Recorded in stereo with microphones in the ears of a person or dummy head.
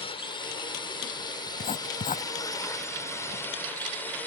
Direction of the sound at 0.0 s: 30° left (ahead or behind).